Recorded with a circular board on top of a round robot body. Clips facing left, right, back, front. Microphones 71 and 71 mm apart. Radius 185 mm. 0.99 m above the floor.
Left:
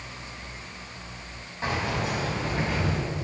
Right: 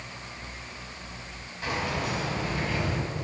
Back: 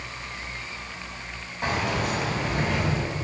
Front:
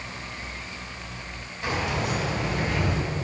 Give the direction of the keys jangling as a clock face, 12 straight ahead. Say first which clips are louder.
Left 2 dB, back 1 dB; 7 o'clock.